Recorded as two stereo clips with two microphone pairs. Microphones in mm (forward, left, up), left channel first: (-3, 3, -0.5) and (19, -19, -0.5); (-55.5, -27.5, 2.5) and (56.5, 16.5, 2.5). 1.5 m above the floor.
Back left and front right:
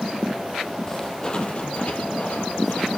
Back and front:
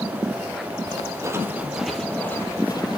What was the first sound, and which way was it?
Footsteps, 65° left.